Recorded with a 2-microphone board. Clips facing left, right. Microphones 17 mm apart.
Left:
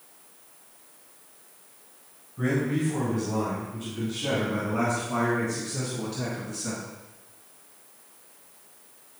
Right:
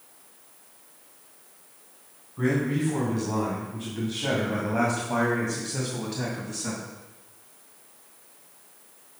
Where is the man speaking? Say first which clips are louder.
Right 1 dB; 30° right (ahead or behind), 3 m; by 6.8 s 55° right (ahead or behind), 3 m.